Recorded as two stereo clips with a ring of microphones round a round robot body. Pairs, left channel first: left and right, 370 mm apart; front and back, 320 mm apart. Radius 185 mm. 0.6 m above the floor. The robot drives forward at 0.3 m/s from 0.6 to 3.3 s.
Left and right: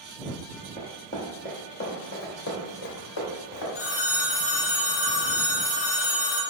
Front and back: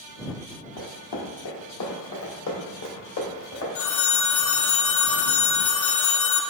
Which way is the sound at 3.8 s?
35° left.